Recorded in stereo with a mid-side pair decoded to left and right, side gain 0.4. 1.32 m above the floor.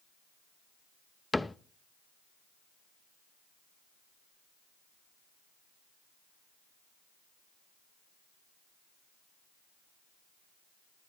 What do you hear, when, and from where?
1.3 s a cupboard door: 15° left, 0.8 m